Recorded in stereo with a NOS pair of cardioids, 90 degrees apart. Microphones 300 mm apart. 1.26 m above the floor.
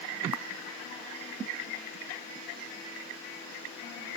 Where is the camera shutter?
55° left.